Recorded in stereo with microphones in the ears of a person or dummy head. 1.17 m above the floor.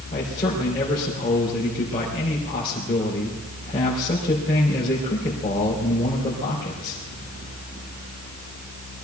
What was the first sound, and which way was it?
A man speaking, 25° left (ahead or behind).